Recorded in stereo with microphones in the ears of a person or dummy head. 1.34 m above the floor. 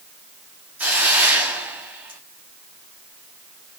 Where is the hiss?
5° right (ahead or behind), 0.7 m.